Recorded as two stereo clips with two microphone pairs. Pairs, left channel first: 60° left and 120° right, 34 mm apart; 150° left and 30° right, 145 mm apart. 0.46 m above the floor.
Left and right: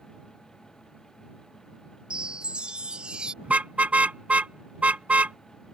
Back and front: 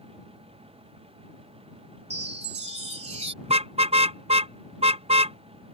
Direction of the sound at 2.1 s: 65° right.